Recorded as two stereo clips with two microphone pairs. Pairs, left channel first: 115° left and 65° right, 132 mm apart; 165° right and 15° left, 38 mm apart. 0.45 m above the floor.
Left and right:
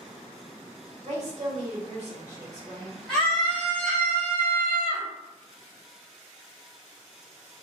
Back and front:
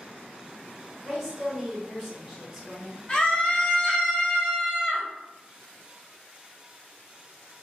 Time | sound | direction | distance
1.0 | a woman speaking | 75° right | 1.4 m
3.1 | a scream | 170° right | 0.8 m